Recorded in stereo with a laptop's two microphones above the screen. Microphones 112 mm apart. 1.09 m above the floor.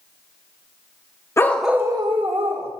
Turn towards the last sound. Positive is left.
turn(degrees=-65)  # may be behind; listen again after turning